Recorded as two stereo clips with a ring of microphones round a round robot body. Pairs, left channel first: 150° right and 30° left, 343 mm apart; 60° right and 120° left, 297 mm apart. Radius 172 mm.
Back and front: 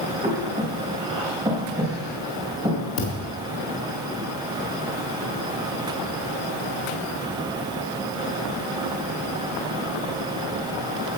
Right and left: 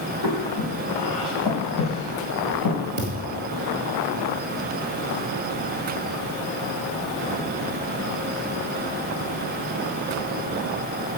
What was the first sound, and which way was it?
Breathing, 50° right.